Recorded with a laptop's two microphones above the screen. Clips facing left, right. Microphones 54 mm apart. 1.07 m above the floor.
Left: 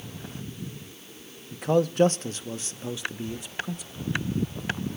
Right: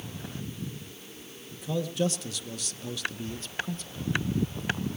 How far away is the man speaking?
About 1.0 m.